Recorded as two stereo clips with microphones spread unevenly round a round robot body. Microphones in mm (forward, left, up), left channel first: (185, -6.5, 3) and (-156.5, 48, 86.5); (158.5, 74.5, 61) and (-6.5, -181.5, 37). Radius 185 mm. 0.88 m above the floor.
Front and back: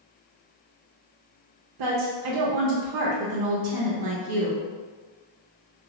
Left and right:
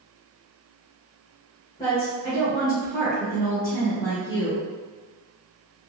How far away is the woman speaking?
About 0.6 m.